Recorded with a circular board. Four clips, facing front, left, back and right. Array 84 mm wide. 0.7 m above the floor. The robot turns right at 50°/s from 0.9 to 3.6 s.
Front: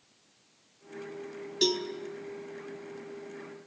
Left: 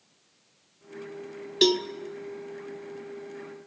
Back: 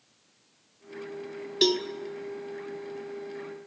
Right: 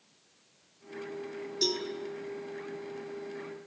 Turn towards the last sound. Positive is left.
turn(degrees=-150)